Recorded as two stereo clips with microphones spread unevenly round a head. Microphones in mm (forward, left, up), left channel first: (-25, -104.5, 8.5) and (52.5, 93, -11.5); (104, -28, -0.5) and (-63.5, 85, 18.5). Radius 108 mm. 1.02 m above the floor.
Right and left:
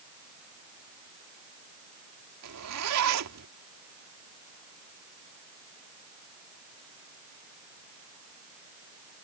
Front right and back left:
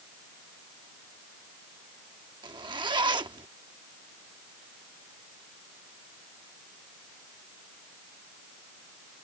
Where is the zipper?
80° left.